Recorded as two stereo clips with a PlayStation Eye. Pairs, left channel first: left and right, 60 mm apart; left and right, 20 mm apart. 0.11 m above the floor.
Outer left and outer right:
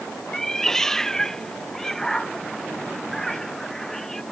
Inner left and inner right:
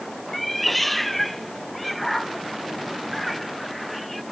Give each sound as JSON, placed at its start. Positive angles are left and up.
{"t": 0.3, "sound": "a cat meowing", "side_deg": 5}